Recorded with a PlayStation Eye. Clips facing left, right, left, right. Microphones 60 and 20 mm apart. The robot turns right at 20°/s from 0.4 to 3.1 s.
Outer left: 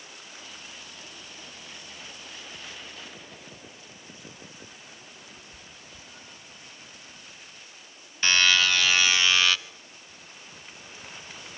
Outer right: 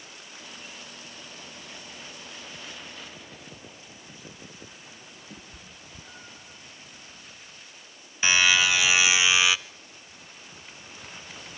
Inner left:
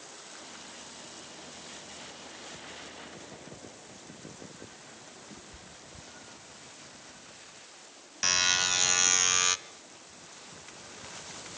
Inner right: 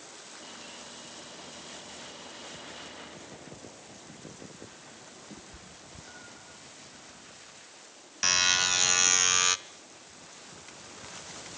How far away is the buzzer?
About 0.5 m.